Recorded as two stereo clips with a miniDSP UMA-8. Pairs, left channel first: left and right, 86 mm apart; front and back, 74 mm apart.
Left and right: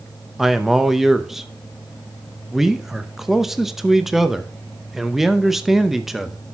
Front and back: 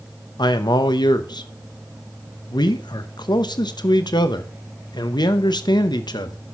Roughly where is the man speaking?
Ahead.